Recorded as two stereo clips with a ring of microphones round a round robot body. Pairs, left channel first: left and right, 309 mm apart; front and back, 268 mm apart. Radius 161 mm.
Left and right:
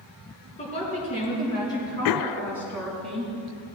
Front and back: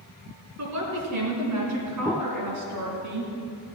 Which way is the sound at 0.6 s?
160° left.